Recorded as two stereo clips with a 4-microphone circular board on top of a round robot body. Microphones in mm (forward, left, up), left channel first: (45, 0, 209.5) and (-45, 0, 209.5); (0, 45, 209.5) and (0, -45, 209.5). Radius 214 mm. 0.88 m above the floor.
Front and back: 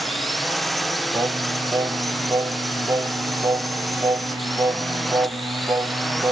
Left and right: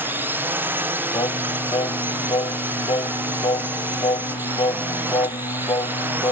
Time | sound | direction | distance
0.0 | a drone | 90° right | ?
1.1 | singing | 120° left | ?